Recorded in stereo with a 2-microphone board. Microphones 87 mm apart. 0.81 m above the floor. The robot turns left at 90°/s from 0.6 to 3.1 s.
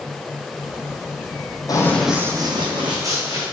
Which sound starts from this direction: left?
Running footsteps, at 1.7 s.